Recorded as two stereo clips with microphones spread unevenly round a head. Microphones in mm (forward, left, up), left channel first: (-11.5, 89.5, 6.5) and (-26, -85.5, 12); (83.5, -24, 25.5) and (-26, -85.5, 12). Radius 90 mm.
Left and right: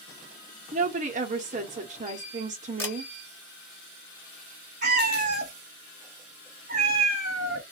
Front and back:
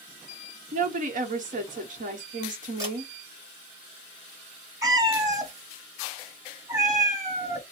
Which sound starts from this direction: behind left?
A camera shutter, at 2.8 s.